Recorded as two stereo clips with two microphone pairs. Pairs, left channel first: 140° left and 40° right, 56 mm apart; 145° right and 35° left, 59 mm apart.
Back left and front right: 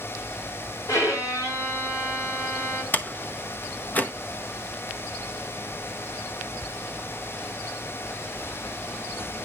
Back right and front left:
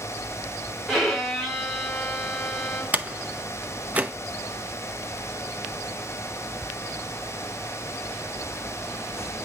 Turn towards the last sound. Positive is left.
turn(degrees=90)